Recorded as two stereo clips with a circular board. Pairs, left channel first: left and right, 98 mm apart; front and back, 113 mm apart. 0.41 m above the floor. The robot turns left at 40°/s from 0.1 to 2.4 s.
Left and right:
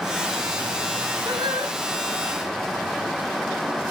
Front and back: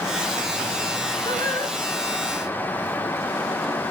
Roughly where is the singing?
Ahead right.